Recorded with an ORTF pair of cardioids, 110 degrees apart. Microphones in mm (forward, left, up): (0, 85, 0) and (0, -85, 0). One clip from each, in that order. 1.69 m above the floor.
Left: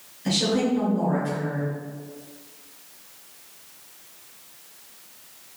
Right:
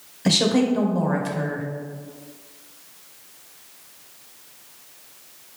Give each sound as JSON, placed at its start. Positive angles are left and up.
{"t": 0.2, "sound": "a woman speaking", "azimuth_deg": -55, "distance_m": 1.1}